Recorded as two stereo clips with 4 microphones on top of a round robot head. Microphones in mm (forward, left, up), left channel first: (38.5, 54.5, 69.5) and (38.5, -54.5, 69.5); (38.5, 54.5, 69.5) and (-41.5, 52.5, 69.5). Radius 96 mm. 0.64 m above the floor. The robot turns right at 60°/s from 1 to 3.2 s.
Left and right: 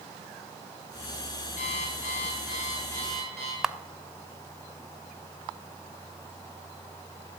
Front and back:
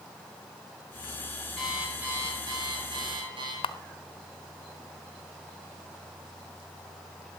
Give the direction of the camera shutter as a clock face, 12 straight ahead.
12 o'clock.